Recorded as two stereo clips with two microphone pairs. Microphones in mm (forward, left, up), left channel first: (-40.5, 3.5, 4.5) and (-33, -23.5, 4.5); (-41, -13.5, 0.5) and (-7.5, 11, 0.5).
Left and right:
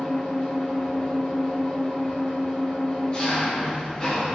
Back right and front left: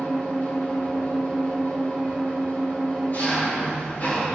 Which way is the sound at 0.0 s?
165° left.